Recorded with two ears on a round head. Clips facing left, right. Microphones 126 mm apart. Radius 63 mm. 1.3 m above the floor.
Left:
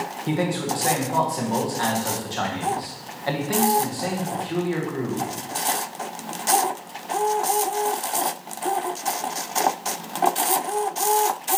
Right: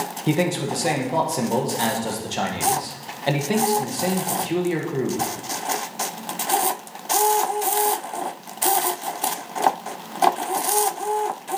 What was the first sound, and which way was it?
A man speaking, 25° right (ahead or behind).